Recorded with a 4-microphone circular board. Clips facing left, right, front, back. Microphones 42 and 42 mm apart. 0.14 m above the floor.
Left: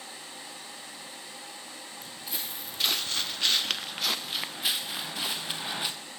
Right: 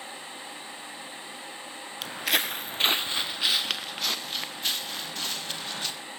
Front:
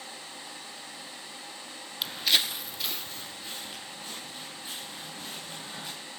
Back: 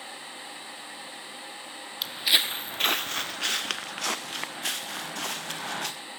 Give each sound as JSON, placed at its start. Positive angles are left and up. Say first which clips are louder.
{"t": 2.0, "sound": "footsteps", "louder": "right 14 dB, back 2 dB", "azimuth_deg": -85, "distance_m": 0.7}